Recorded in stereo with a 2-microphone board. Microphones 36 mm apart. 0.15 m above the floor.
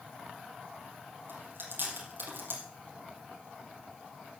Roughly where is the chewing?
Right.